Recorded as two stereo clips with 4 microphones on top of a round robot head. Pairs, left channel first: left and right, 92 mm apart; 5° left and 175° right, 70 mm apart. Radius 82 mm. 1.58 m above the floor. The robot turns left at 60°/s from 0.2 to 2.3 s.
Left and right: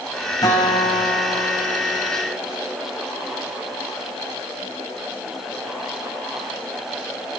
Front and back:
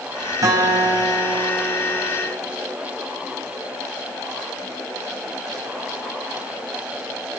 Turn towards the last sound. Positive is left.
turn(degrees=40)